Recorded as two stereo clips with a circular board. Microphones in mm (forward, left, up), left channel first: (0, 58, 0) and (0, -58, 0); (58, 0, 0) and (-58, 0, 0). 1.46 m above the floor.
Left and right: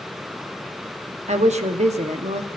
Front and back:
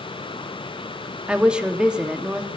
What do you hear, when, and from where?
1.3 s a woman speaking: 100° right, 1.1 m